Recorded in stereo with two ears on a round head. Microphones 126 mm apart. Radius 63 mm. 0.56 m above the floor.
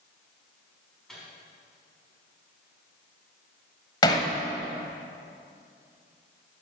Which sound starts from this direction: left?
Hammering, at 4.0 s.